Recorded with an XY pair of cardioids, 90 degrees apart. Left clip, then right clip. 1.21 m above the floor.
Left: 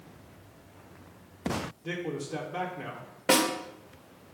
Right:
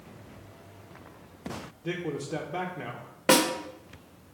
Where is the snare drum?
35° right, 1.4 m.